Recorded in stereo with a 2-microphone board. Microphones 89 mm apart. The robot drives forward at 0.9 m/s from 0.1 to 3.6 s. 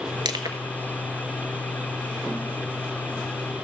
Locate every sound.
0.2 s crushing: 55° right (ahead or behind), 0.9 m; by 0.6 s 40° right (ahead or behind), 1.0 m